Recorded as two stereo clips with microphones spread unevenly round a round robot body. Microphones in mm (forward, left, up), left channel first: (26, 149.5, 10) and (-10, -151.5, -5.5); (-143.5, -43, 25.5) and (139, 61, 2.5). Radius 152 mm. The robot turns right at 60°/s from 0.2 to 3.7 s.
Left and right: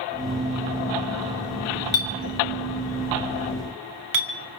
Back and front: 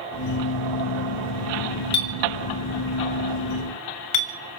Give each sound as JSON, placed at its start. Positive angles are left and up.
{"t": 1.9, "sound": "a clink", "azimuth_deg": 125, "distance_m": 2.0}